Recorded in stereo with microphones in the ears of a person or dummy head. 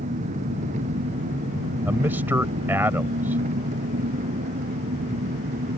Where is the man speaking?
10° right (ahead or behind).